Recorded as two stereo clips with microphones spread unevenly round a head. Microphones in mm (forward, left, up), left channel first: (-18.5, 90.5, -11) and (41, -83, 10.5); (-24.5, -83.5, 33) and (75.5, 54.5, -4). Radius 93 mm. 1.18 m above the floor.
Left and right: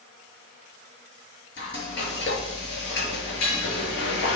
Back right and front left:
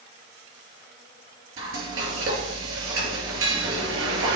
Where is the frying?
75° left, 6 m.